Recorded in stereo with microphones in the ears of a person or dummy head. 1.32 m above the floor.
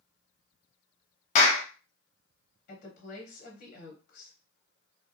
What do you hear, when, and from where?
1.4 s a clap: 40° left (ahead or behind), 0.8 m
2.7 s a woman speaking: 45° left (ahead or behind), 1.1 m